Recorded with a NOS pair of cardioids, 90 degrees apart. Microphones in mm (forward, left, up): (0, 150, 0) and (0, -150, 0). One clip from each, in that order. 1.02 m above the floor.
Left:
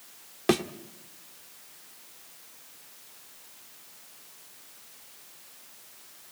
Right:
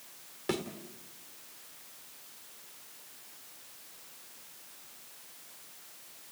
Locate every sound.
0.5 s a thud: 55° left, 1.5 m